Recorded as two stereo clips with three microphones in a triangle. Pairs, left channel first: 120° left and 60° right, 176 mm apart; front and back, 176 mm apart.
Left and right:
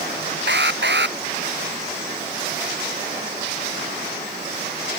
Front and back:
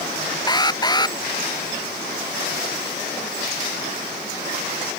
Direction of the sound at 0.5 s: 65° right.